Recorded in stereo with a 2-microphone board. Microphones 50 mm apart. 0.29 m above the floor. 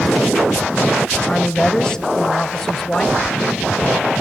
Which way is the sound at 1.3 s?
15° left (ahead or behind).